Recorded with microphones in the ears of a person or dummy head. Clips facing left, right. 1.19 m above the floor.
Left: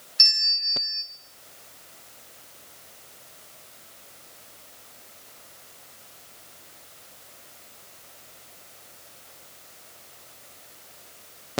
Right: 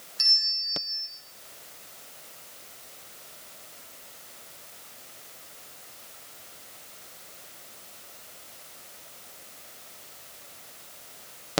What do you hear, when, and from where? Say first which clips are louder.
0.2 s a bell: left 4 dB; 30° left (ahead or behind), 0.7 m